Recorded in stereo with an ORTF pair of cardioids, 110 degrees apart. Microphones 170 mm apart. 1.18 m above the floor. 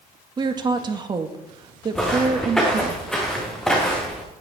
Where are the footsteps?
5° left, 5 m.